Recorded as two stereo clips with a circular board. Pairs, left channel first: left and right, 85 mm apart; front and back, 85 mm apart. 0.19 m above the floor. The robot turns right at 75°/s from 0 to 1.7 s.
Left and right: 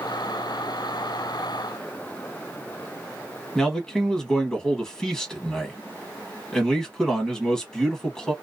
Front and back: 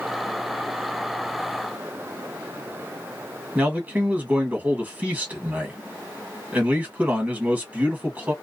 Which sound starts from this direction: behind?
A man speaking, at 3.5 s.